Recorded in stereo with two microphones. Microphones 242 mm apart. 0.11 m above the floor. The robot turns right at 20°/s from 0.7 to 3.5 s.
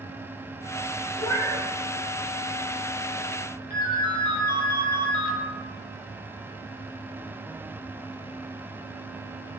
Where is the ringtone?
45° left (ahead or behind), 0.9 m.